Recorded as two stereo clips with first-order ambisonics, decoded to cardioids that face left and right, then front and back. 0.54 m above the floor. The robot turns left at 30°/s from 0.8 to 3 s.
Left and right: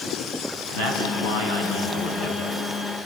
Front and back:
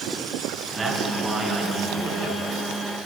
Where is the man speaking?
105° left, 5.5 m; by 2.4 s 55° left, 5.5 m.